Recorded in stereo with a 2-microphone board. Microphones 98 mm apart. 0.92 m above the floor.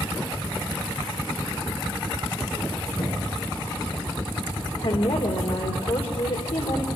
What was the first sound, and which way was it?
Knocking, 60° left (ahead or behind).